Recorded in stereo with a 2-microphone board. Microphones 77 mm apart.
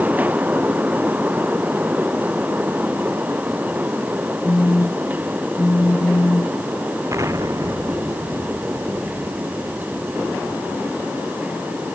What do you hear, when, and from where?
4.4 s a phone buzzing: 35° left (ahead or behind)
7.1 s an explosion: 45° right (ahead or behind)